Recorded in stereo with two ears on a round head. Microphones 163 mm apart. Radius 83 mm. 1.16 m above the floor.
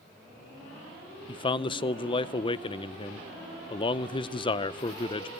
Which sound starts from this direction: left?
A man speaking, at 1.3 s.